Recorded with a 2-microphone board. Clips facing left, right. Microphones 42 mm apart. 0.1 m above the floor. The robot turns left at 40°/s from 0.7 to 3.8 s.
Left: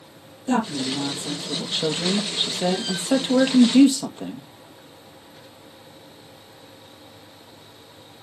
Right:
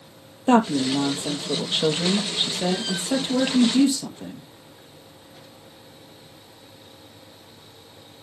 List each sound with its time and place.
0.5 s a woman speaking: 110° right, 2.5 m; by 4.5 s 130° left, 2.5 m